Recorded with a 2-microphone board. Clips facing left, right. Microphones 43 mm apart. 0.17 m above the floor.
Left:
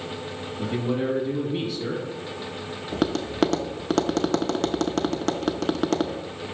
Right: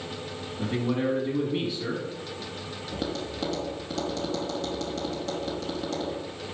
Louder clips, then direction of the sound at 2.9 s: Left 7 dB; 65° left (ahead or behind).